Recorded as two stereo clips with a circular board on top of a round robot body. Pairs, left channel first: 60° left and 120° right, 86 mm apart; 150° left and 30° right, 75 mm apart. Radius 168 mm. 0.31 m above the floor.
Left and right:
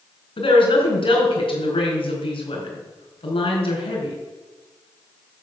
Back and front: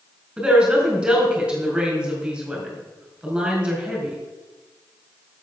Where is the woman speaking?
50° left, 4.5 m.